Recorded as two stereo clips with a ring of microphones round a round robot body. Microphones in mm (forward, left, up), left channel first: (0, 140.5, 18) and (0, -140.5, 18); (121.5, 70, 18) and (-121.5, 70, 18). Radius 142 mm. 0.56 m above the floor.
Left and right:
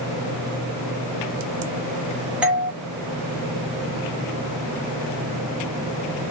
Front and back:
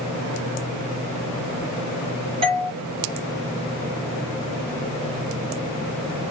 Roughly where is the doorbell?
Behind.